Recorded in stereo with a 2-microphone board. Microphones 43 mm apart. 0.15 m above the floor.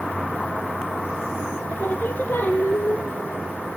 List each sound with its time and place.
1.7 s singing: 55° left (ahead or behind), 1.2 m